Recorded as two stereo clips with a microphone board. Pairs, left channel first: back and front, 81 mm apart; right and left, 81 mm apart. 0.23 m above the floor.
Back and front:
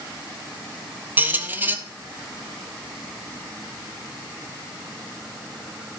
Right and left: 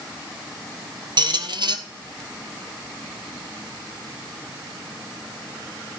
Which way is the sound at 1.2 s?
65° left.